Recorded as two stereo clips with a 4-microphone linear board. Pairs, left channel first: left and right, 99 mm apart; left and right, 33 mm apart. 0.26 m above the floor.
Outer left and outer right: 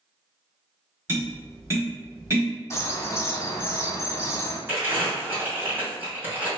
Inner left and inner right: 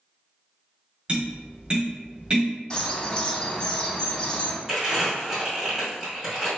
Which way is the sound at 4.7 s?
15° right (ahead or behind).